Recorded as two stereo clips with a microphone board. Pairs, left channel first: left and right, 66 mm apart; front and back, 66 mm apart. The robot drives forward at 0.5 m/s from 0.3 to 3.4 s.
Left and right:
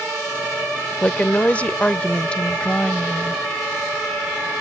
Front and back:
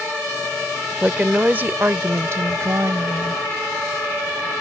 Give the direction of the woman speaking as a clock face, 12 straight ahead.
8 o'clock.